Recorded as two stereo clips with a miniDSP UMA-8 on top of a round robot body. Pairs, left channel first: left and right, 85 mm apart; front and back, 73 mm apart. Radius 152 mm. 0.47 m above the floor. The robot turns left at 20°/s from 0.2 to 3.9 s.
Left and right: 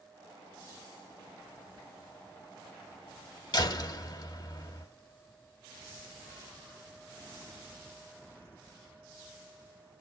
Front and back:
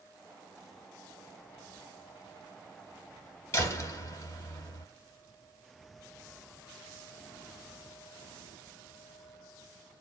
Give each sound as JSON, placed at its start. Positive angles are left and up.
{"t": 3.5, "sound": "a door slam", "azimuth_deg": 55, "distance_m": 1.8}